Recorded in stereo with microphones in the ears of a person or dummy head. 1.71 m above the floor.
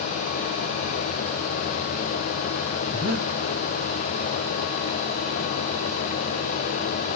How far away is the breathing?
About 3 m.